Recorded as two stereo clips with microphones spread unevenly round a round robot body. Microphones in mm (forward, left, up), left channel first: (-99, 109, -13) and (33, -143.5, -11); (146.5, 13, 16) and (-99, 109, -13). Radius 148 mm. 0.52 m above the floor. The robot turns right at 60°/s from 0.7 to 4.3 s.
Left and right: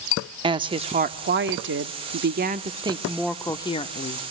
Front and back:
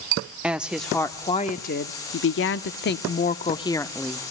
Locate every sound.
0.4 s a woman speaking: 125° right, 0.8 m; by 4.2 s 85° left, 0.8 m